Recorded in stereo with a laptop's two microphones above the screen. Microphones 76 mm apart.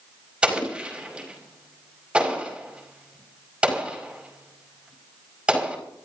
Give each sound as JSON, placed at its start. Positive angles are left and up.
{"t": 0.4, "sound": "an explosion", "side_deg": -15, "distance_m": 5.5}